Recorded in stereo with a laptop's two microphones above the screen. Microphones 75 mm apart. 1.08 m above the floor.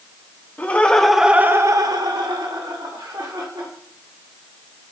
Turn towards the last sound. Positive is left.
turn(degrees=-80)